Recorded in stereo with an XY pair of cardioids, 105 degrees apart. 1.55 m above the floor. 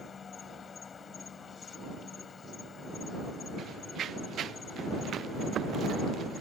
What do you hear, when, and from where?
0.0 s an insect: 40° left
3.6 s running footsteps: 55° right